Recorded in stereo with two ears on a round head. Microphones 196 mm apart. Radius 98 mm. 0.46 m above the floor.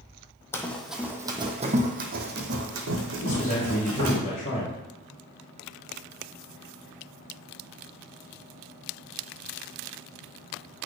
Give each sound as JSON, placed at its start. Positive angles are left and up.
{"t": 0.5, "sound": "running footsteps", "side_deg": 10, "distance_m": 0.9}
{"t": 3.2, "sound": "a man speaking", "side_deg": 35, "distance_m": 1.7}